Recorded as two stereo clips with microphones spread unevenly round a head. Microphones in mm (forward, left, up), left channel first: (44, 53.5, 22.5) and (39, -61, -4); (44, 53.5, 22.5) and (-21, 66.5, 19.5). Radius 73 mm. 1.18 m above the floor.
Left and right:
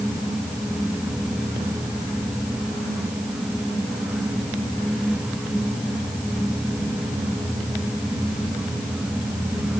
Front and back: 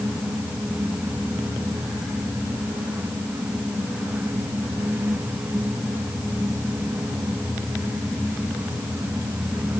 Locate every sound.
Only background noise.